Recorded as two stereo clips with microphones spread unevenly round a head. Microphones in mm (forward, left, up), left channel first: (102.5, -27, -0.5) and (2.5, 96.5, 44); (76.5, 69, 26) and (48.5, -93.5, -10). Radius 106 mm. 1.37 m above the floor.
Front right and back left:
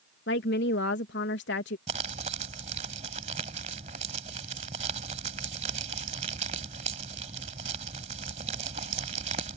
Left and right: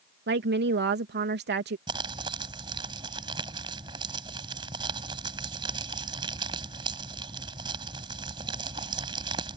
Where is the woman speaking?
80° right.